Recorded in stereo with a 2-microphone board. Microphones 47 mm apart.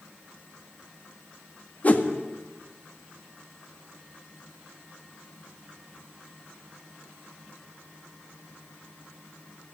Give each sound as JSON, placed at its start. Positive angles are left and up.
{"t": 1.8, "sound": "a whoosh", "side_deg": 35, "distance_m": 1.8}